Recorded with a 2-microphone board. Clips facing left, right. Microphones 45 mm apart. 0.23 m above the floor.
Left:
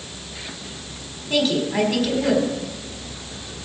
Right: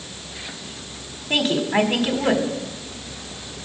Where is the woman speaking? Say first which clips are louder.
Right 1 dB; 35° right (ahead or behind), 1.6 m.